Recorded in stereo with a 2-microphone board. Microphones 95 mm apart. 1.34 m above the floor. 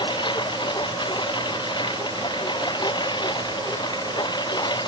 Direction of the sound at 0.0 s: 55° left (ahead or behind).